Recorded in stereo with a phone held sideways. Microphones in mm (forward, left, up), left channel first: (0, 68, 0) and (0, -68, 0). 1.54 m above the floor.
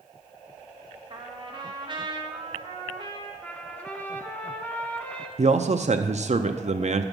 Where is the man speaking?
55° right (ahead or behind), 0.5 m.